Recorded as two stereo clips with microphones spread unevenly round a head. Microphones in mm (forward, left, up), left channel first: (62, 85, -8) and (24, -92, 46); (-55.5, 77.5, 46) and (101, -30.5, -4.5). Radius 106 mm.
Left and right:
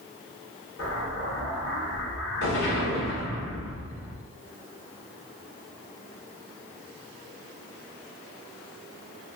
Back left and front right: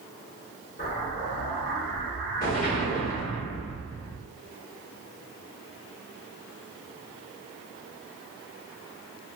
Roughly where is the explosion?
Left.